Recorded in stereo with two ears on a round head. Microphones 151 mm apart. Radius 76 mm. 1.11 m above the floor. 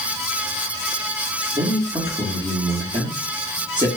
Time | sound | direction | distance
1.6 | a man speaking | 25° right (ahead or behind) | 1.5 m